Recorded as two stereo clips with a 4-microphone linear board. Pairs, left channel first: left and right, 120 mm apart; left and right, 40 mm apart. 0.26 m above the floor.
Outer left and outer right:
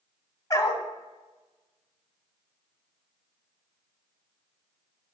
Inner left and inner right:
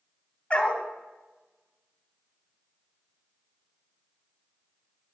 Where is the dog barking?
30° left (ahead or behind), 0.7 m.